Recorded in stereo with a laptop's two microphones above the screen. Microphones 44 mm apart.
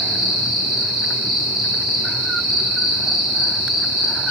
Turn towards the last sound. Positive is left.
turn(degrees=-10)  # may be behind; listen again after turning